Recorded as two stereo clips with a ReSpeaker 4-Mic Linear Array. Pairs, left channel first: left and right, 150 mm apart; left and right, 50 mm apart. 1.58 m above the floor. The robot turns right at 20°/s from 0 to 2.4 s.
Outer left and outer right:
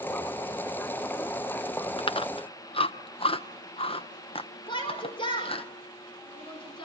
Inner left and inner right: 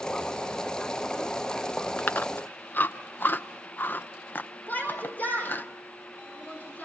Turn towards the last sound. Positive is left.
turn(degrees=35)  # may be behind; listen again after turning